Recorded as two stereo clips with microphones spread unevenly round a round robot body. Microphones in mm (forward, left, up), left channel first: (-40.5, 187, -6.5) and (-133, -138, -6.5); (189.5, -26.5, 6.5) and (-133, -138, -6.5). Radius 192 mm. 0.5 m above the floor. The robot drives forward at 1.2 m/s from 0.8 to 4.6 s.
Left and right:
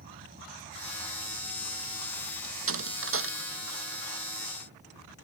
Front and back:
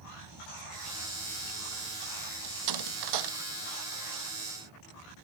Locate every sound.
0.0 s an insect: 170° right; by 5.2 s 175° right
2.4 s a door slam: 155° right; by 4.0 s 160° right